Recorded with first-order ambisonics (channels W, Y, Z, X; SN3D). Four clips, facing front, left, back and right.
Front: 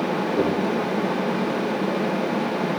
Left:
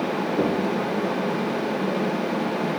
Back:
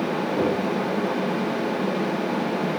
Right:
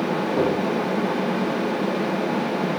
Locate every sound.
0.4 s knocking: 100° right, 6 m